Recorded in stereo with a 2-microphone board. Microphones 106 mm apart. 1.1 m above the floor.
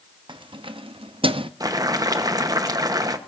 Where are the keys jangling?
55° right (ahead or behind), 0.9 m; by 1.5 s 60° right (ahead or behind), 0.6 m.